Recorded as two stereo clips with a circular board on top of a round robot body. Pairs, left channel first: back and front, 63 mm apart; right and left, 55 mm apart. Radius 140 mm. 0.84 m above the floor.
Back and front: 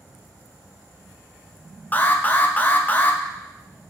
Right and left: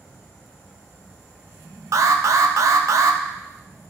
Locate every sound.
1.9 s an alarm: 115° left, 0.6 m